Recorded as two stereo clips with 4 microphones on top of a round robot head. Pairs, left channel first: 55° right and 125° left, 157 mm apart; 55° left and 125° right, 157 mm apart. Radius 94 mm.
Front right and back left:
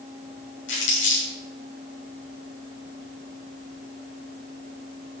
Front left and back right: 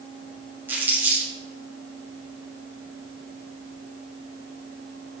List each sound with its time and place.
0.7 s crumpling: 50° right, 7 m